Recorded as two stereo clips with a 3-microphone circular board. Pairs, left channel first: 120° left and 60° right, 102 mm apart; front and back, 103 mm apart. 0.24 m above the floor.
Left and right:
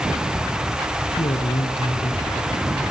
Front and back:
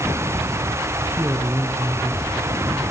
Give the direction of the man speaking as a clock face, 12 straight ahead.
8 o'clock.